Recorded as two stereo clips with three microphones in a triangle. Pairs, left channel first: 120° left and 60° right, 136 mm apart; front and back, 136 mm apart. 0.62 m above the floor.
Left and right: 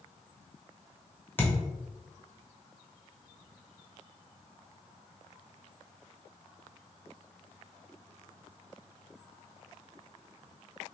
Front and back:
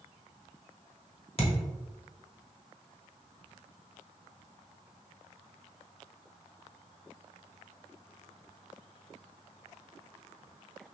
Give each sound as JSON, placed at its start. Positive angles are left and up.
{"t": 1.4, "sound": "a thud", "azimuth_deg": 45, "distance_m": 1.1}